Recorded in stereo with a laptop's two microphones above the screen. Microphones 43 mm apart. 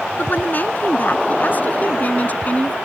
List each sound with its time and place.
0.2 s a woman speaking: 45° left (ahead or behind); by 2.8 s 35° left (ahead or behind)